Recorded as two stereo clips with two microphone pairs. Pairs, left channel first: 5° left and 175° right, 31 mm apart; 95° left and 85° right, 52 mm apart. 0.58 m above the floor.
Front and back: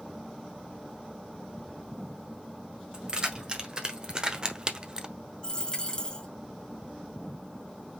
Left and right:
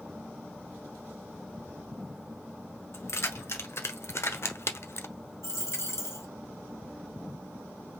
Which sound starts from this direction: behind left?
Keys jangling, at 2.9 s.